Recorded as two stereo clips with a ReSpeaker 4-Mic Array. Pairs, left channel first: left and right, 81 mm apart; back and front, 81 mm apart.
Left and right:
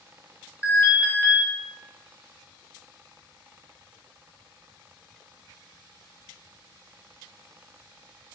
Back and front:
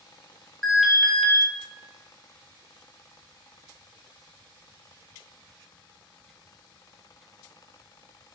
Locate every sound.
0.6 s an alarm: 90° left, 0.7 m